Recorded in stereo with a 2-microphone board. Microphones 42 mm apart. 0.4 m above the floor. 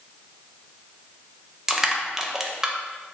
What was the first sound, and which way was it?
Crushing, 15° right (ahead or behind).